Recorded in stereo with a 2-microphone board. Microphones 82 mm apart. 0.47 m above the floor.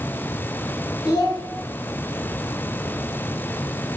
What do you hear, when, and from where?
1.1 s a child speaking: 60° left (ahead or behind), 0.9 m